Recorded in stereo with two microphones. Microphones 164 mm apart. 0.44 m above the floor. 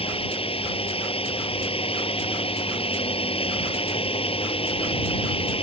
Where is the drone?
35° left (ahead or behind).